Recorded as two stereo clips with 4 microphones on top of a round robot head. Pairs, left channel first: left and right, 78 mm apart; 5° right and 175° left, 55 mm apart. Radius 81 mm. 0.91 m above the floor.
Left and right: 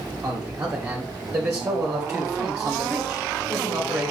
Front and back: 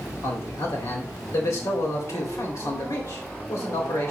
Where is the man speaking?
15° right, 3 m.